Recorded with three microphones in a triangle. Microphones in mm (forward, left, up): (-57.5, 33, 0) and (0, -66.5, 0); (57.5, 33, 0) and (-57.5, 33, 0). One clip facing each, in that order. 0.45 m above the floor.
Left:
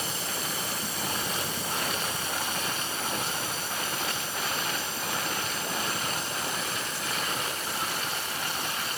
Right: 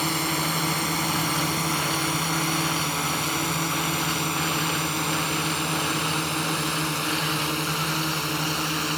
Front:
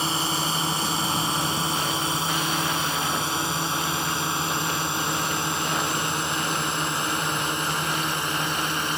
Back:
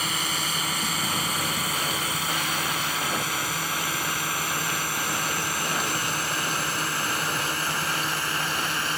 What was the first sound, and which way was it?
A drone, 60° right.